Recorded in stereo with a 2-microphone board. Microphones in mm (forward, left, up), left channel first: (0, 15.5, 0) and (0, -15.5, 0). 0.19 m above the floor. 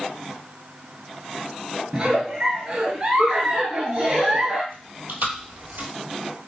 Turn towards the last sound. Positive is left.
turn(degrees=-80)